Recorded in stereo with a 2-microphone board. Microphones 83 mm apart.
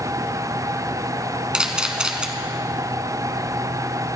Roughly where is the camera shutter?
Centre.